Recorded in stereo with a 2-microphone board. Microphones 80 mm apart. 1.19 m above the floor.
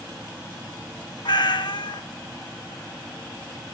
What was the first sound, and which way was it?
A cat meowing, 65° left (ahead or behind).